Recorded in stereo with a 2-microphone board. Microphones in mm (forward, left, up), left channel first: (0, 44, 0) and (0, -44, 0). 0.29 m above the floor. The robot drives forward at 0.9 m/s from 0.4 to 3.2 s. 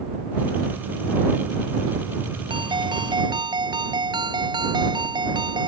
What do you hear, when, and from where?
2.5 s a ringtone: 65° right (ahead or behind); by 5.7 s 60° right (ahead or behind)